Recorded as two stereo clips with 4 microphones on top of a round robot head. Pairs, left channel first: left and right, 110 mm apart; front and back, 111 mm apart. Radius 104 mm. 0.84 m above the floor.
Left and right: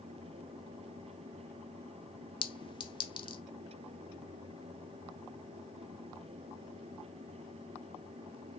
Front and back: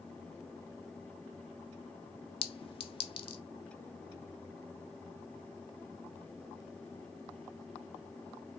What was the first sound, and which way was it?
A clink, 40° left.